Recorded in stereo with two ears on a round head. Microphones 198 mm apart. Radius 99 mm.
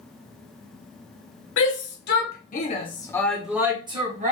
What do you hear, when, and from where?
1.6 s a shout: 60° left (ahead or behind), 1.8 m; by 4.3 s 35° right (ahead or behind), 1.4 m